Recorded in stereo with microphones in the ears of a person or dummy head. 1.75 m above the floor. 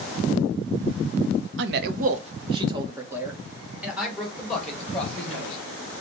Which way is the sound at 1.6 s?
70° right (ahead or behind).